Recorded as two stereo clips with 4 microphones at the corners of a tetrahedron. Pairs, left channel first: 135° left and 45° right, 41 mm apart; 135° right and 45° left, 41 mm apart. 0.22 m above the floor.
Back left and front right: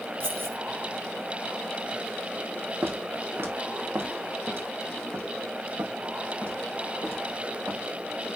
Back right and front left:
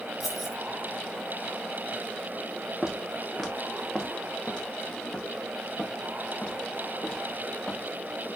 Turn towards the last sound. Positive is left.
turn(degrees=-85)